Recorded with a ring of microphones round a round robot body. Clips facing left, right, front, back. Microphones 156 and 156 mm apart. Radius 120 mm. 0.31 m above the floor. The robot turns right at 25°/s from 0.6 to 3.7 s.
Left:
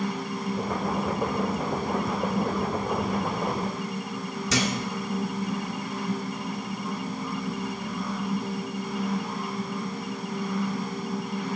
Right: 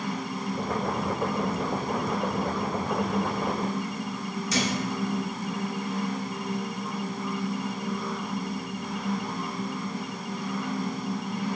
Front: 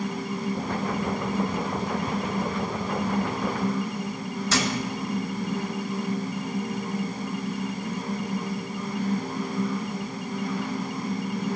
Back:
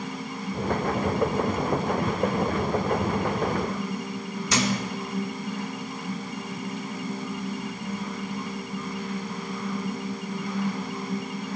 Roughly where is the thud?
Left.